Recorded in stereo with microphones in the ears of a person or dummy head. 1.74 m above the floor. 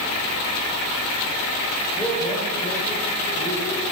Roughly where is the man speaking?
Centre.